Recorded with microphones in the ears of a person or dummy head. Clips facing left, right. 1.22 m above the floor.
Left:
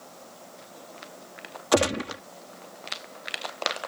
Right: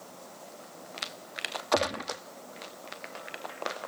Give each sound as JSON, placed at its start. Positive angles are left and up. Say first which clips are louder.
{"t": 1.7, "sound": "a gunshot", "louder": "left 6 dB", "side_deg": 40}